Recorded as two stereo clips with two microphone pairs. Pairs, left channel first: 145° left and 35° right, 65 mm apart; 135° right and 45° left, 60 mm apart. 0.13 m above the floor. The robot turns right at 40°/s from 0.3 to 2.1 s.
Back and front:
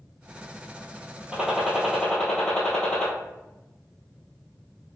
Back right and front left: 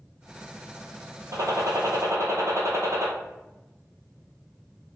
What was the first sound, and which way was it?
A gunshot, 40° left.